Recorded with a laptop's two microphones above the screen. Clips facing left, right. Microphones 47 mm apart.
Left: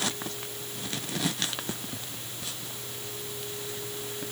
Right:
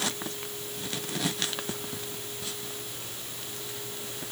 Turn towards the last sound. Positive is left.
No sound to turn to.